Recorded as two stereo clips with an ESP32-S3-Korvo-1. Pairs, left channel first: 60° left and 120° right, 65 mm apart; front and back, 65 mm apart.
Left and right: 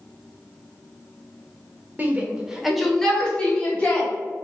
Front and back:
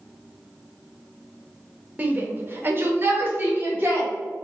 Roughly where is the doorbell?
I don't hear a doorbell.